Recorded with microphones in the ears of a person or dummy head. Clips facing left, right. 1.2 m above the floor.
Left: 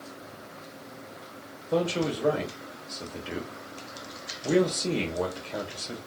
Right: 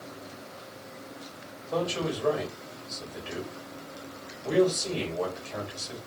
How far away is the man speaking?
About 1.4 m.